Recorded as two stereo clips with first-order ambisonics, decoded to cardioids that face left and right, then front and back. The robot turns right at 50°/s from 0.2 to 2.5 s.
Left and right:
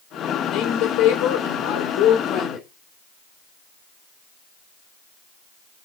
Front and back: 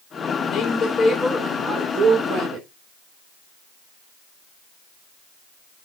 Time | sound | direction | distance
0.5 | a woman speaking | 45° left | 3 m